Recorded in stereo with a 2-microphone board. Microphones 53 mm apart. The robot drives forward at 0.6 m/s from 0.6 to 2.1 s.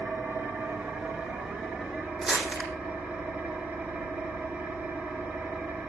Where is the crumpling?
10° right (ahead or behind), 5 m.